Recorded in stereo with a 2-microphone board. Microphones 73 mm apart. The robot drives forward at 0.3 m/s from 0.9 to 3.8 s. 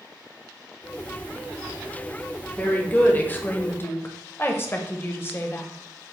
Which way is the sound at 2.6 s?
20° left (ahead or behind).